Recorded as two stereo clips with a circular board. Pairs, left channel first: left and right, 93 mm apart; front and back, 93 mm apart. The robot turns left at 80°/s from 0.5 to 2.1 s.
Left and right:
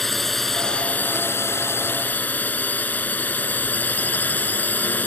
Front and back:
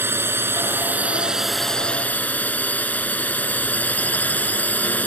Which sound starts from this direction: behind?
A drone, at 0.0 s.